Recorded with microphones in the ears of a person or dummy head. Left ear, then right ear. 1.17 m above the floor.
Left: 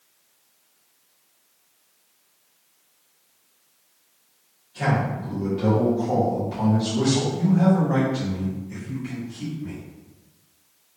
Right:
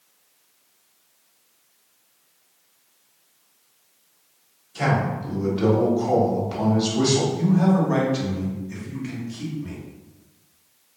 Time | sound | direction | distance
4.8 | a man speaking | 30° right (ahead or behind) | 1.1 m
7.3 | a man speaking | 20° right (ahead or behind) | 1.0 m